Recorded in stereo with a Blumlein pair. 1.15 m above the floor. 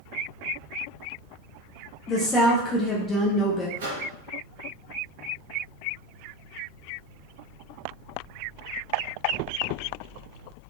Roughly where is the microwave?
Ahead right.